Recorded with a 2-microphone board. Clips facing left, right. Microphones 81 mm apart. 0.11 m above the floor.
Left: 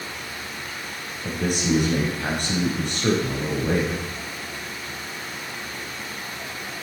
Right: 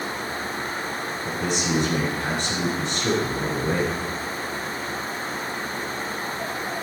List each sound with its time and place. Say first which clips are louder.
1.2 s a man speaking: left 3 dB; 55° left (ahead or behind), 6.5 m